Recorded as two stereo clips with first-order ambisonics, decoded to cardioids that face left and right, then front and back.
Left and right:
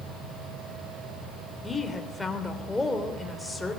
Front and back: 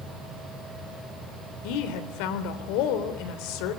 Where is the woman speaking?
10° left, 3.5 m.